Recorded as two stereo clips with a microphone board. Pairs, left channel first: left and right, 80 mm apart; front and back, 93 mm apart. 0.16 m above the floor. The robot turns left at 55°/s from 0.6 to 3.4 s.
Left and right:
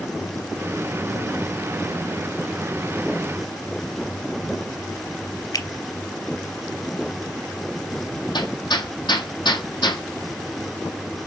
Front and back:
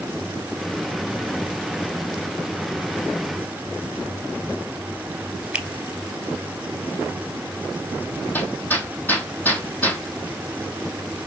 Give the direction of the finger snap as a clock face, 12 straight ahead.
9 o'clock.